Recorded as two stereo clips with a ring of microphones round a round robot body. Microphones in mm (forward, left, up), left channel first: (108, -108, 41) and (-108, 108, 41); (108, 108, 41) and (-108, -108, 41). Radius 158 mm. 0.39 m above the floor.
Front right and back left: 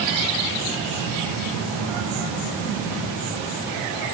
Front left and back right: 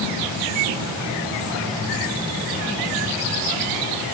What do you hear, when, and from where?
Only background noise.